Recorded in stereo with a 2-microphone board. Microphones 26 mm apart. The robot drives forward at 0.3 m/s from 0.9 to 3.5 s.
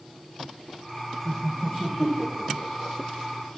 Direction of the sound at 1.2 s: 5° right (ahead or behind).